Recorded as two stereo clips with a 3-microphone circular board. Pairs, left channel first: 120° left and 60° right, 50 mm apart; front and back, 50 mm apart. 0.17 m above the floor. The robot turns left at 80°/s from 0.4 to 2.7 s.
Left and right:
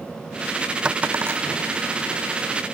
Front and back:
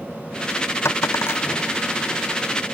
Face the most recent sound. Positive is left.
turn(degrees=-140)